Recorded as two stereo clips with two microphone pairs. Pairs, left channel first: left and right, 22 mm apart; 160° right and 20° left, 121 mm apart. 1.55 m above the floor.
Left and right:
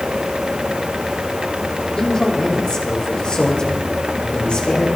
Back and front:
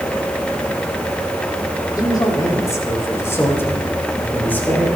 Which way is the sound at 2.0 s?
140° left.